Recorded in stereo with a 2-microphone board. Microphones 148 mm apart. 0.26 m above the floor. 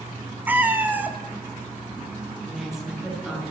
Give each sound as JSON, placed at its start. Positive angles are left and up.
{"t": 0.5, "sound": "a cat meowing", "side_deg": -10, "distance_m": 1.0}
{"t": 2.4, "sound": "a woman speaking", "side_deg": -5, "distance_m": 5.0}